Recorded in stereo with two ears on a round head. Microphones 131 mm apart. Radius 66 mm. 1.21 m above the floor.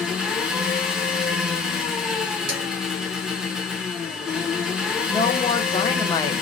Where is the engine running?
5° right (ahead or behind), 0.9 m.